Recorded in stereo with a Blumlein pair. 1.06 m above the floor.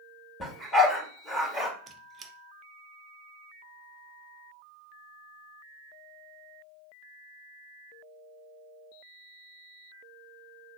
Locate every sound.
0.4 s a dog barking: straight ahead, 2 m
1.9 s a squeak: 20° right, 0.6 m